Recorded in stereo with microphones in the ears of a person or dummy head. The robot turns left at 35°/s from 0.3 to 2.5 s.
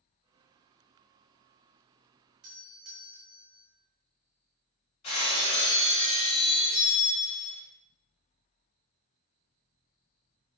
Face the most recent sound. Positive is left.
turn(degrees=25)  # may be behind; listen again after turning